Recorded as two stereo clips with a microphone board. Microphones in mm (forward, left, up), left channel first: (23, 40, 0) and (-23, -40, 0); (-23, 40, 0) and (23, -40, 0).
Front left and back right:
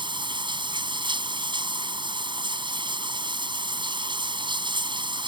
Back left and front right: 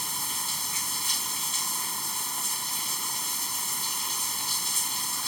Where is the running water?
150° right.